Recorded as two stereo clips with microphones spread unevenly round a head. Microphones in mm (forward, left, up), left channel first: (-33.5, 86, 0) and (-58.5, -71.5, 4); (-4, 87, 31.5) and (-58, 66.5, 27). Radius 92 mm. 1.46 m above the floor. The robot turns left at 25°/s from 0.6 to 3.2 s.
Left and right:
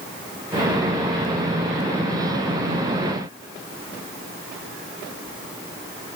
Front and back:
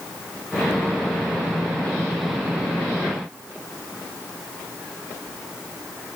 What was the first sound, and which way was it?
Only background noise.